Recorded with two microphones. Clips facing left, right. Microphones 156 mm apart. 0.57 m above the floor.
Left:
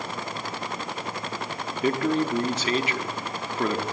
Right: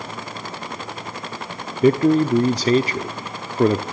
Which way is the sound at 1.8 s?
35° right (ahead or behind).